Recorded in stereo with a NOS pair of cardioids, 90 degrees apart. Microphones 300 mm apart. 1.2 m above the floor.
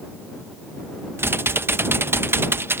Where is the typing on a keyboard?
10° right.